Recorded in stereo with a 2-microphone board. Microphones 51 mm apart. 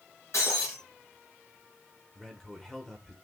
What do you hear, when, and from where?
0.3 s breaking glass: 65° left (ahead or behind), 2.5 m
2.1 s a man speaking: 5° left (ahead or behind), 1.1 m